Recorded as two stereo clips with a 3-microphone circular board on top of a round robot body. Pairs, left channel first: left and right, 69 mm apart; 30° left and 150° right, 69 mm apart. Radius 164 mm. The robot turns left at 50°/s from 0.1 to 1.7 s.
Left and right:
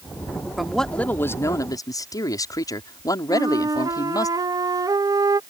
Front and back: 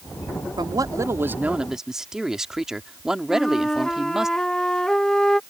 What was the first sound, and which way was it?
A man speaking, 175° right.